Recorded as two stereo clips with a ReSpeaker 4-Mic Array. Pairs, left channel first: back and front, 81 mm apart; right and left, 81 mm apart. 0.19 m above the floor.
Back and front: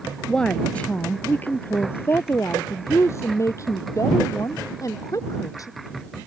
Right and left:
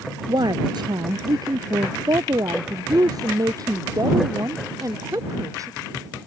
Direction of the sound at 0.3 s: 100° left.